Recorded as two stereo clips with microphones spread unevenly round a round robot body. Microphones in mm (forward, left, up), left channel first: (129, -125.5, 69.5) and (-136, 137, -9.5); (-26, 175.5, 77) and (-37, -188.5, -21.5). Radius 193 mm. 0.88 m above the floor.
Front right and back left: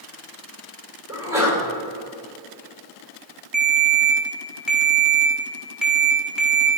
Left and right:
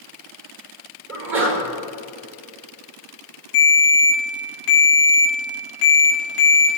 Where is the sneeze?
145° right, 3.5 m.